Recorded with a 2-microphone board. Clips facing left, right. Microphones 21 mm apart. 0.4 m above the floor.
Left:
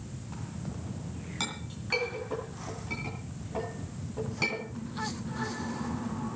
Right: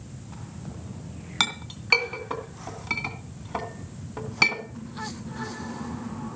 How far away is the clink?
About 3 m.